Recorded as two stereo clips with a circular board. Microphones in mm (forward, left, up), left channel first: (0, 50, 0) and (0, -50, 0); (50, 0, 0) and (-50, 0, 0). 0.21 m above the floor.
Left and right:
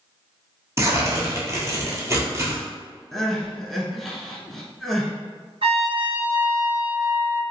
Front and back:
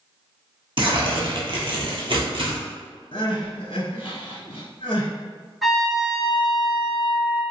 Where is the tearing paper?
150° right, 1.0 m.